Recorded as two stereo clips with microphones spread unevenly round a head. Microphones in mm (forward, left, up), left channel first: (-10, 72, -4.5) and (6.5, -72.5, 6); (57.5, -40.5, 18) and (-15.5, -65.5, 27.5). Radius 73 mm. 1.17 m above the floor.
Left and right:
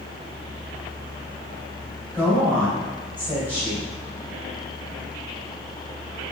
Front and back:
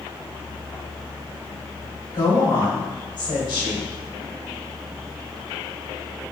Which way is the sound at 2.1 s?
5° right.